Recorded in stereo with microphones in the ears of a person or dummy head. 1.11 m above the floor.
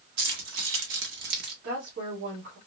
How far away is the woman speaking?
About 1.6 m.